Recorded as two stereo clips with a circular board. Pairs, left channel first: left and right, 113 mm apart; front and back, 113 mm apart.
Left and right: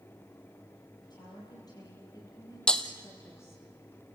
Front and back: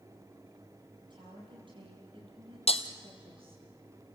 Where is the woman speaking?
140° left, 7 m; by 3.7 s 155° left, 4 m.